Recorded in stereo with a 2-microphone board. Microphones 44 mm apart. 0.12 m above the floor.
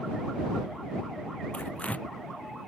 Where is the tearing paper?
30° left (ahead or behind).